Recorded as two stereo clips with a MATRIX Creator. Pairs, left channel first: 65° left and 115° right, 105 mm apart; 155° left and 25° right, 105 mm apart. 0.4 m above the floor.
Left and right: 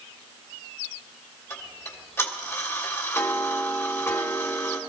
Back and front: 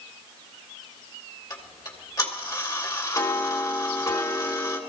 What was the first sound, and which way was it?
Ticking, 120° left.